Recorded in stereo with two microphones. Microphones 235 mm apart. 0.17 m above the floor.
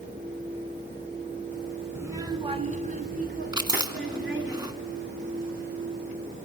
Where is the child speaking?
10° right (ahead or behind), 0.9 m; by 4.5 s 60° right (ahead or behind), 1.7 m.